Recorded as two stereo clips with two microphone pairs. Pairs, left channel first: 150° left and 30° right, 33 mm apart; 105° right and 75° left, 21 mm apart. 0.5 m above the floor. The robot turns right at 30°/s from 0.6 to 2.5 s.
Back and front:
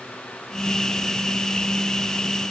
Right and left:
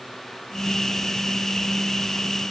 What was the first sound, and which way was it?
Only background noise.